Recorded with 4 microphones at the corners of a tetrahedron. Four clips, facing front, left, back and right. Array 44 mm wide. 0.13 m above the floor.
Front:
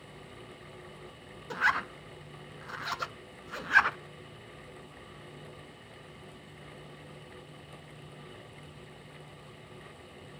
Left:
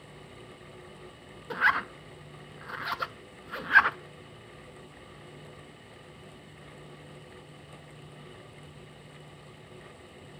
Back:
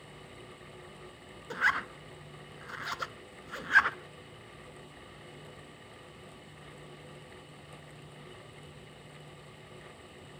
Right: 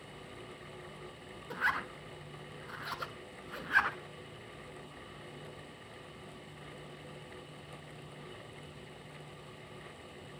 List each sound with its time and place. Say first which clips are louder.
1.5 s a zipper: left 8 dB, front 1 dB; 95° left, 0.5 m